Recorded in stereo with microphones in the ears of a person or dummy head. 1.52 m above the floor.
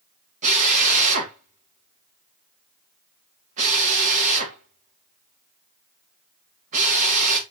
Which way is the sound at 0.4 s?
40° right (ahead or behind).